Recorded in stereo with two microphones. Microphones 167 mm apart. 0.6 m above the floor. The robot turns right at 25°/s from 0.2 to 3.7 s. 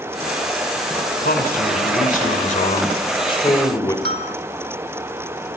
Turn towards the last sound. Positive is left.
turn(degrees=-80)